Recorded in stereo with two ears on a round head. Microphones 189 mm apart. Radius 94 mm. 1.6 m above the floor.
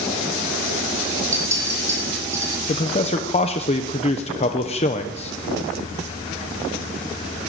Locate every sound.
1.3 s a clink: 15° right (ahead or behind), 7.5 m
2.7 s a man speaking: 30° left (ahead or behind), 1.1 m